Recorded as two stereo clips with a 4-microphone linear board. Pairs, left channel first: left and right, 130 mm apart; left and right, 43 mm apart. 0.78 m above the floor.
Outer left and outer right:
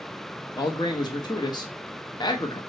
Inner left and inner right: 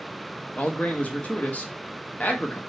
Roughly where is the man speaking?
Left.